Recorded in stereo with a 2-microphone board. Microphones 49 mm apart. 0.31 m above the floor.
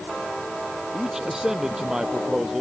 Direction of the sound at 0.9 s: 10° right (ahead or behind).